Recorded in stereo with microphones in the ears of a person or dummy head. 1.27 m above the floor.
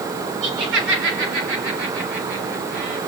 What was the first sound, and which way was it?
Laughter, 85° right.